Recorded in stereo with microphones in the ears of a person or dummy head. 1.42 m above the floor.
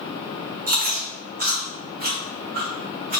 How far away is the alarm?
I don't hear an alarm.